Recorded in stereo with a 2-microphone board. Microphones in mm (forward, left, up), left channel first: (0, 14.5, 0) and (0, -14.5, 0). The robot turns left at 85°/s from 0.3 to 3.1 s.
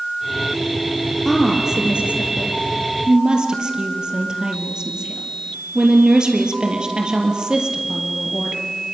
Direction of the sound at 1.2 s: 15° left (ahead or behind).